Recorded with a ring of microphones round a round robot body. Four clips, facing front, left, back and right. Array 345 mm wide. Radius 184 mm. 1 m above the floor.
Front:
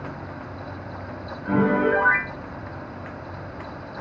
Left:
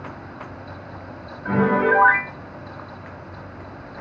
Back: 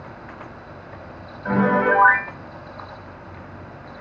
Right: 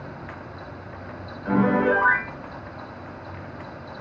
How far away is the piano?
About 3 m.